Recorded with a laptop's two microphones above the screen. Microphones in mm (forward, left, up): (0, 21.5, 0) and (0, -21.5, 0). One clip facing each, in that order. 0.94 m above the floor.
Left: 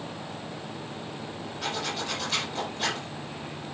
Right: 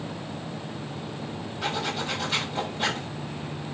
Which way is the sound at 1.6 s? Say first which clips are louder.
Right 3 dB; 5° right (ahead or behind).